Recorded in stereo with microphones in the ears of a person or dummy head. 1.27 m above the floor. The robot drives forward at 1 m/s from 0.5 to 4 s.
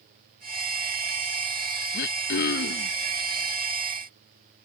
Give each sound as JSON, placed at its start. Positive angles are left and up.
{"t": 1.9, "sound": "throat clearing", "side_deg": 60}